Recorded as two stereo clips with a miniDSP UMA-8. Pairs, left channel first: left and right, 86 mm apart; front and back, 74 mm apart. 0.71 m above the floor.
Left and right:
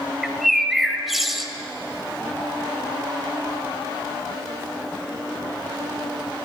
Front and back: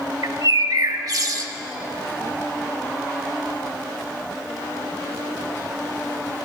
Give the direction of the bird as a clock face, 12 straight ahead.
6 o'clock.